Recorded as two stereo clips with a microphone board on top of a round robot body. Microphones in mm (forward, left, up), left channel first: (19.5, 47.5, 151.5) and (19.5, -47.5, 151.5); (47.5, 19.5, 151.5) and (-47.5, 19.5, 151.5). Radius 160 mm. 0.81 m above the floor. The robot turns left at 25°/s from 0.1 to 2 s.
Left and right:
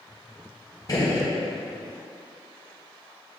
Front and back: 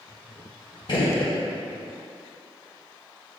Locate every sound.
0.9 s a gunshot: 40° left, 1.1 m; by 1.3 s 30° left, 1.1 m